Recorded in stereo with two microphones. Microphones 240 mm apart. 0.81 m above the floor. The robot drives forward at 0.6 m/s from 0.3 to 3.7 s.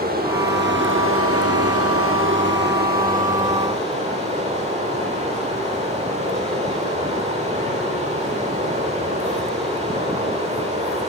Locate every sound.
0.0 s running water: 40° right (ahead or behind), 1.0 m; by 11.1 s 30° right (ahead or behind), 1.4 m